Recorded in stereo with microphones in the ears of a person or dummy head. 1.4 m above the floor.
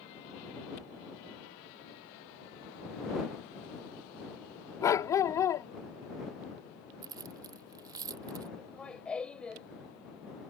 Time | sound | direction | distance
4.8 | a dog barking | 20° left (ahead or behind) | ?
7.0 | keys jangling | 20° right (ahead or behind) | ?
8.6 | laughter | 5° left (ahead or behind) | ?